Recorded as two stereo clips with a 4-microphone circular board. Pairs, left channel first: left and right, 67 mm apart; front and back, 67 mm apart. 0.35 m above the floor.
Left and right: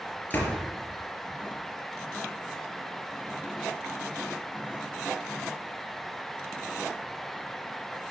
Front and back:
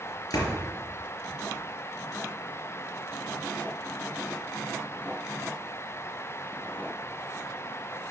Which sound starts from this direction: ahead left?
A door slam, at 0.3 s.